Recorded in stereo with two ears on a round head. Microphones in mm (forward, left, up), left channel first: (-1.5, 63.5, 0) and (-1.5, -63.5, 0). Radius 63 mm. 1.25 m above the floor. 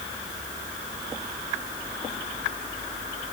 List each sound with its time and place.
Only background noise.